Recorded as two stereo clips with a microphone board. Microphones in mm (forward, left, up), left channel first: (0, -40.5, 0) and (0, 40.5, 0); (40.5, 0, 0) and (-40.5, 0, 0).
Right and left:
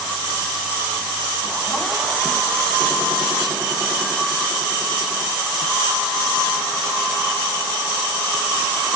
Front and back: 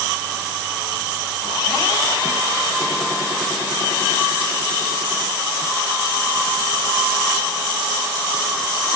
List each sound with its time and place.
Only background noise.